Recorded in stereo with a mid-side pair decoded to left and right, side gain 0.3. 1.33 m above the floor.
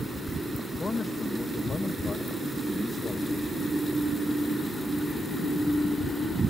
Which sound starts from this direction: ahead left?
A man speaking, at 0.8 s.